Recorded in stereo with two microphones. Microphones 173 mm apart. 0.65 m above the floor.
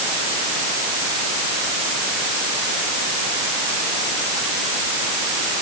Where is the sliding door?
No sliding door in this recording.